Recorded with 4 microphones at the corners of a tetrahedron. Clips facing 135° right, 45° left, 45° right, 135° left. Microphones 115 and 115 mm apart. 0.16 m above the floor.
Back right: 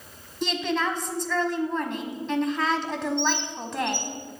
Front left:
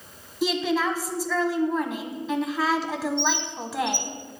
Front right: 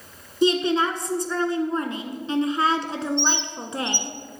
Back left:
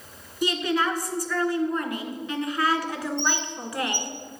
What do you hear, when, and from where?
0.4 s a woman speaking: 35° right, 1.1 m
3.2 s a bird: 15° left, 0.8 m